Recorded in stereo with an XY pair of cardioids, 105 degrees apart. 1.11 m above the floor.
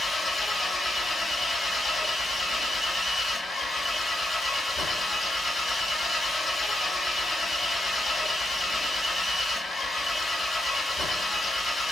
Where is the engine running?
30° left, 1.4 m.